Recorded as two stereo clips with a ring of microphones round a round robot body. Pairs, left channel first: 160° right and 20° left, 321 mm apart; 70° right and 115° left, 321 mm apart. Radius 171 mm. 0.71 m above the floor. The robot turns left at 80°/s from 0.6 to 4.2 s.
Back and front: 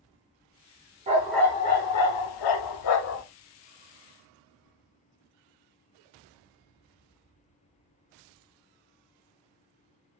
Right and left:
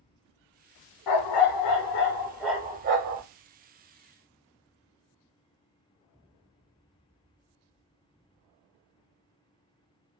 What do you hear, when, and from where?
1.1 s a dog barking: 45° right, 0.5 m; by 3.2 s 140° left, 0.5 m